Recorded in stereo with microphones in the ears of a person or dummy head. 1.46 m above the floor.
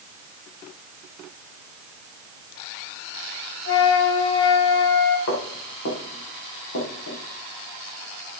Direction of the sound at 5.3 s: 70° left (ahead or behind).